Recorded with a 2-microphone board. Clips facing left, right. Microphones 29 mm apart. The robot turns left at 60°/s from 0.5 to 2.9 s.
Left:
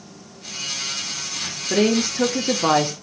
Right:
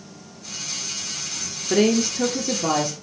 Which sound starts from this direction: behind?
A woman speaking, at 1.7 s.